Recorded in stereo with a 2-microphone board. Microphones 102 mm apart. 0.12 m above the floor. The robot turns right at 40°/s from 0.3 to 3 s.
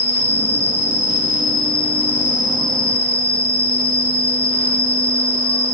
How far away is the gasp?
I don't hear a gasp.